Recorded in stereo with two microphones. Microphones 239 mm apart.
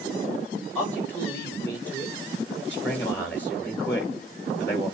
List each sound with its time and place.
0.8 s a man speaking: 5° left (ahead or behind), 7 m
2.7 s a man speaking: 5° left (ahead or behind), 7.5 m